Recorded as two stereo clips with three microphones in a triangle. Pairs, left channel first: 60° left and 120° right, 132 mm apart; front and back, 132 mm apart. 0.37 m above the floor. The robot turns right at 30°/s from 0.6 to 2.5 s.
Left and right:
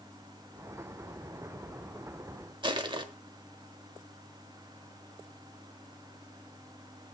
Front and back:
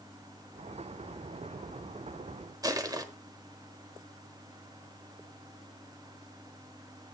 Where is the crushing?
140° right, 1.2 m.